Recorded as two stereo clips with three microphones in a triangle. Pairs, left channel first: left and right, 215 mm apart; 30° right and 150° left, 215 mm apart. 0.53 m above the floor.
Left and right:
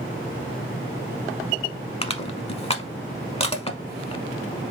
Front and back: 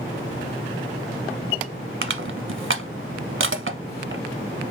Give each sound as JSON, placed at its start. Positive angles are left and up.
{"t": 2.0, "sound": "crushing", "azimuth_deg": 150, "distance_m": 0.8}